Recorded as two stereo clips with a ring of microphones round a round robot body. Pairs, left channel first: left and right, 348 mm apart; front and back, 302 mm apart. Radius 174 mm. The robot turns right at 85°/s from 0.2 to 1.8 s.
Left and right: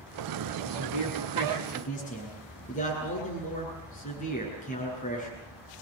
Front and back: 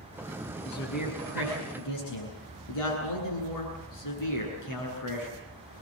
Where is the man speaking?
75° right, 9.5 m; by 5.4 s 20° left, 9.5 m.